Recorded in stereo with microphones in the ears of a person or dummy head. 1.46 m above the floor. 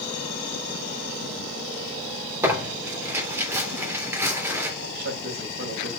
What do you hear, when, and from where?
2.4 s tearing paper: 15° right (ahead or behind), 3 m
4.8 s a man speaking: 55° right (ahead or behind), 2.5 m